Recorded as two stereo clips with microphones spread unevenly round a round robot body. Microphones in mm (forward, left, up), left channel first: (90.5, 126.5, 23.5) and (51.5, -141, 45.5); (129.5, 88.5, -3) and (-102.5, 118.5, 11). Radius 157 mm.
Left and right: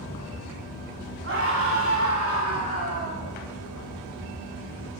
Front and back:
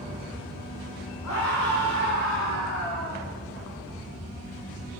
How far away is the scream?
About 8.5 m.